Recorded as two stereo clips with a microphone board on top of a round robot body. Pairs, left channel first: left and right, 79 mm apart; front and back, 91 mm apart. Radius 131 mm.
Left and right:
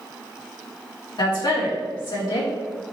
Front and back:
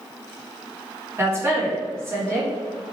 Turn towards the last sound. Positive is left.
turn(degrees=120)